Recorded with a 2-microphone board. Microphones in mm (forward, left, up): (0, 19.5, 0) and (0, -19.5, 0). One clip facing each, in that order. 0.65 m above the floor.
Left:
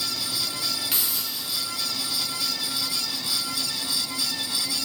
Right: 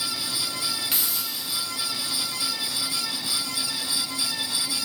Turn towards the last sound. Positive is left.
turn(degrees=-5)  # may be behind; listen again after turning